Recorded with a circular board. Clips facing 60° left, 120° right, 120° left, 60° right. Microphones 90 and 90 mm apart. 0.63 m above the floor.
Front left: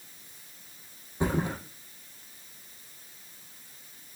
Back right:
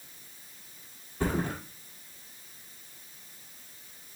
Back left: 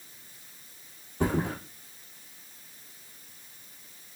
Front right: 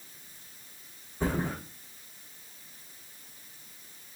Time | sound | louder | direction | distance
1.2 | a thud | front left 1 dB, back left 3 dB | 130° left | 2 m